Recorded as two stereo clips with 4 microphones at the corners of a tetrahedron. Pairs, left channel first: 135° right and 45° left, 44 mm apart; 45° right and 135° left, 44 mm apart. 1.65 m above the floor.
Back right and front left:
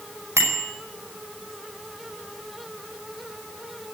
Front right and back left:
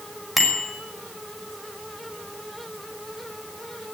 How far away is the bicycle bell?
About 5.5 m.